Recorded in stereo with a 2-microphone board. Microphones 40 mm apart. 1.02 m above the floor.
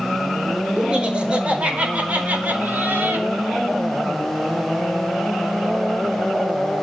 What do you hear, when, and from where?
0.8 s laughter: 25° right (ahead or behind), 5 m; by 3.3 s 55° right (ahead or behind), 3 m